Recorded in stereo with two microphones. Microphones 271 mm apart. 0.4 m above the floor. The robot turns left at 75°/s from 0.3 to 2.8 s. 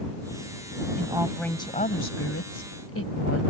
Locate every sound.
0.9 s a woman speaking: 150° right; by 3.4 s 70° left